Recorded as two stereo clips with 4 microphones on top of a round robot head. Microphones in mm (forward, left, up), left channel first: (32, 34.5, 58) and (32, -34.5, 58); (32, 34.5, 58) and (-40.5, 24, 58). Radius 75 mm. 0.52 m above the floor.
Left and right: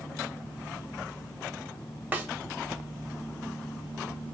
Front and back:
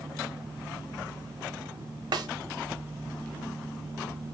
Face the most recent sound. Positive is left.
turn(degrees=-155)